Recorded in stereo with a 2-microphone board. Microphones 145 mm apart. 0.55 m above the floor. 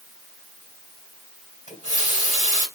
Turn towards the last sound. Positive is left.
turn(degrees=60)  # may be behind; listen again after turning